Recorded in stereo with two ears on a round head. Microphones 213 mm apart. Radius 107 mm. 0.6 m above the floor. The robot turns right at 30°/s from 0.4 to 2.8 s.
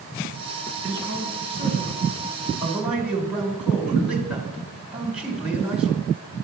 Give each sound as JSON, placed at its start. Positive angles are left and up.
{"t": 0.8, "sound": "a man speaking", "azimuth_deg": -65, "distance_m": 2.5}